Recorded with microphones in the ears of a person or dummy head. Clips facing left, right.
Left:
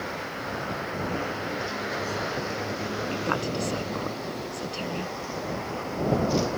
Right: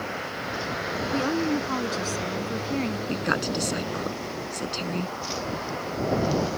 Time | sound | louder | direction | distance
1.1 | a woman speaking | right 7 dB | 75° right (ahead or behind) | ?
3.1 | a woman speaking | right 1 dB | 15° right (ahead or behind) | ?